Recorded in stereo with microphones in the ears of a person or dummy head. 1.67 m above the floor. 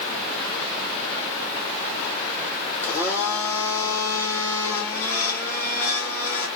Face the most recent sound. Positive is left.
turn(degrees=15)  # may be behind; listen again after turning